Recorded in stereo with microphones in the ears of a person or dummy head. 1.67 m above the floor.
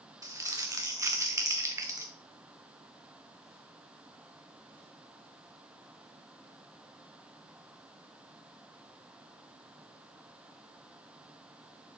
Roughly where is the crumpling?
Right.